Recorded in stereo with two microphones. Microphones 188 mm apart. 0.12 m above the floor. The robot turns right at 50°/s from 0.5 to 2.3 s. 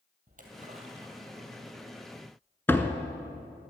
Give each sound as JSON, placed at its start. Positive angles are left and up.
{"t": 0.3, "sound": "a splash", "azimuth_deg": -50, "distance_m": 2.5}
{"t": 2.7, "sound": "a door slam", "side_deg": 10, "distance_m": 0.8}